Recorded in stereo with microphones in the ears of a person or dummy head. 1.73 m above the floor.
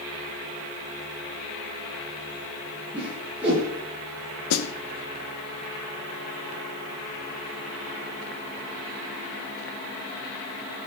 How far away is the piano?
I don't hear a piano.